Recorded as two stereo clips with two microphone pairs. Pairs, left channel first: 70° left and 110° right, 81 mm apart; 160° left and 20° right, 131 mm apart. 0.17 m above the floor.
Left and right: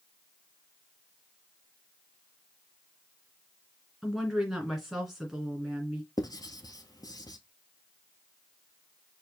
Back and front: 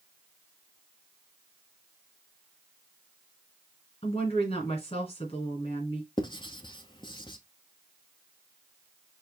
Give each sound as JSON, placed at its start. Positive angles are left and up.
{"t": 4.0, "sound": "a woman speaking", "azimuth_deg": 160, "distance_m": 2.5}
{"t": 6.2, "sound": "writing", "azimuth_deg": 110, "distance_m": 0.7}